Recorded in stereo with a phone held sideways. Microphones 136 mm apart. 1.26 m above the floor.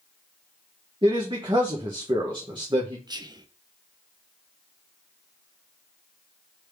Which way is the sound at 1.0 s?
35° right (ahead or behind).